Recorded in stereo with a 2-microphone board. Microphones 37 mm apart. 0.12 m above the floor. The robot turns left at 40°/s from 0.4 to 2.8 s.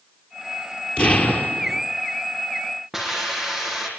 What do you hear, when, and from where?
1.0 s an explosion: 140° left, 3 m; by 1.8 s 105° left, 3 m
2.9 s a hiss: 10° right (ahead or behind), 6 m